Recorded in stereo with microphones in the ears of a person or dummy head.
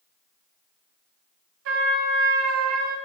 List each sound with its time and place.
1.6 s a trumpet: 60° right (ahead or behind), 0.9 m